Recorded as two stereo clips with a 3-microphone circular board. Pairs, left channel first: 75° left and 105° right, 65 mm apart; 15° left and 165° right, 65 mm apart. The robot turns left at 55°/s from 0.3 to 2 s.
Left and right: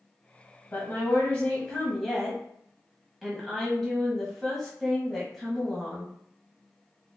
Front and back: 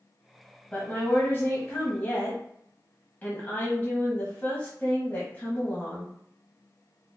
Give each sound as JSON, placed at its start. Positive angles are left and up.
{"t": 0.7, "sound": "a woman speaking", "azimuth_deg": 55, "distance_m": 1.1}